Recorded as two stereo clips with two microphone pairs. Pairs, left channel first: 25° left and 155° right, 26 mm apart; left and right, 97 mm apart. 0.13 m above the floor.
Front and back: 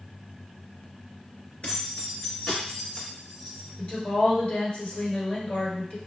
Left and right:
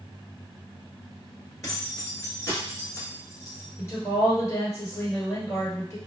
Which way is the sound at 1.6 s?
40° left.